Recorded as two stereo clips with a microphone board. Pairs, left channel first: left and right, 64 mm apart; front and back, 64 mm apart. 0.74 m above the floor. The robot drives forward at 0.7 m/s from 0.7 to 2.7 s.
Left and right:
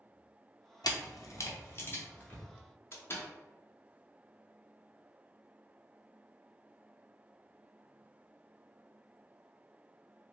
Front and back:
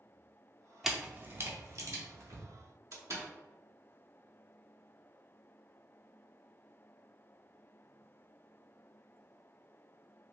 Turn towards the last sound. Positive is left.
turn(degrees=140)